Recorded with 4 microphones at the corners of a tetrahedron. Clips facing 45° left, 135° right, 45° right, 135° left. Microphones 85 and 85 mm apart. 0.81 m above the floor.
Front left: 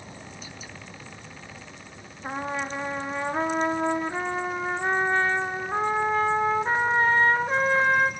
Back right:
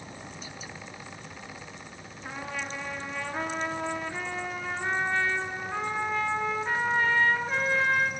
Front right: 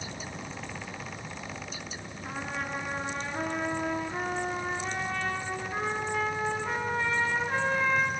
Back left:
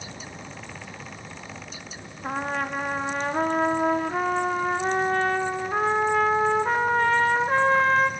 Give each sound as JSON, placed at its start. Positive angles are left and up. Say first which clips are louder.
{"t": 2.2, "sound": "a trumpet", "louder": "front left 6 dB, back left 8 dB", "azimuth_deg": 100, "distance_m": 0.8}